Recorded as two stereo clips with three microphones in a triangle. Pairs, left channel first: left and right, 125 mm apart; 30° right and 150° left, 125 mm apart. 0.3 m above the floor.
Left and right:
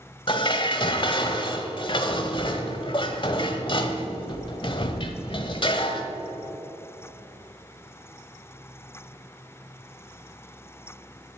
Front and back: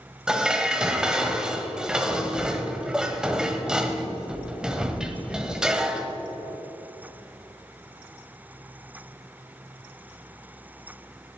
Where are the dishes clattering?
70° left, 0.9 m.